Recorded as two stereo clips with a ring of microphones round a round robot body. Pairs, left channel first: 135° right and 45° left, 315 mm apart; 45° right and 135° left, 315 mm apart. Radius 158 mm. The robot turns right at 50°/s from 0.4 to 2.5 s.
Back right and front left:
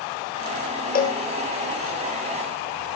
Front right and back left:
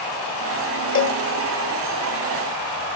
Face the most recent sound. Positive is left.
turn(degrees=-5)